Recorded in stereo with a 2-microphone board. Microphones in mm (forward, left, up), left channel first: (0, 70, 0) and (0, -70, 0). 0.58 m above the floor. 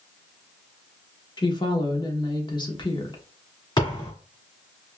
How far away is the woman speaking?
About 1.1 m.